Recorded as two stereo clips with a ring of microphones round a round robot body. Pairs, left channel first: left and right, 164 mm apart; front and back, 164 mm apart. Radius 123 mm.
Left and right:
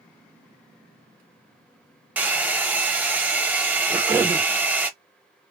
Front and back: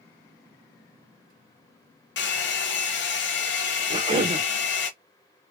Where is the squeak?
I don't hear a squeak.